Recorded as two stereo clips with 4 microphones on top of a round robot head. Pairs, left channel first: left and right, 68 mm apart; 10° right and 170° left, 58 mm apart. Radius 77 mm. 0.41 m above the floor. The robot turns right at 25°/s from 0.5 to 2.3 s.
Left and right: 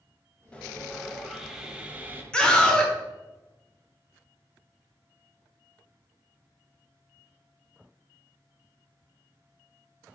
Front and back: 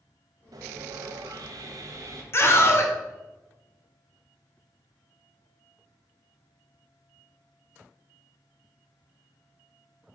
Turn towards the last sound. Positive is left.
turn(degrees=15)